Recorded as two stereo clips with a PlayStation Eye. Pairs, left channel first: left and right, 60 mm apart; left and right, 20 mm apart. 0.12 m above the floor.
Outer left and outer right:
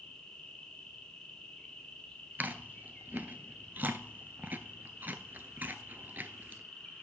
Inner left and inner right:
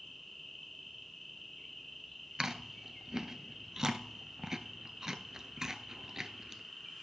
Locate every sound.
0.0 s an insect: 15° left (ahead or behind), 1.9 m
2.4 s chewing: 30° right (ahead or behind), 0.7 m